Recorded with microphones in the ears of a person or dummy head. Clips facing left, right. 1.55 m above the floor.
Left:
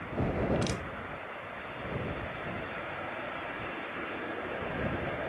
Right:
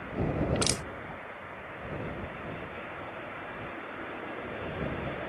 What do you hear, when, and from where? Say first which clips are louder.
0.6 s crushing: right 1 dB; 60° right (ahead or behind)